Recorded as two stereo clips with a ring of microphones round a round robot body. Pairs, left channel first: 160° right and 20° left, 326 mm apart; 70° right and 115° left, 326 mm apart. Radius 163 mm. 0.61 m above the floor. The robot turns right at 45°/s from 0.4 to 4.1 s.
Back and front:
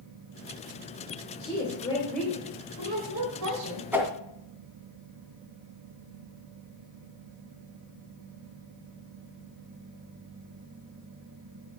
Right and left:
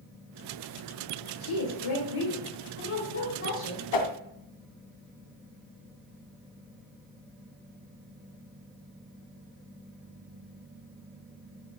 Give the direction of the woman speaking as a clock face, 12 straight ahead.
3 o'clock.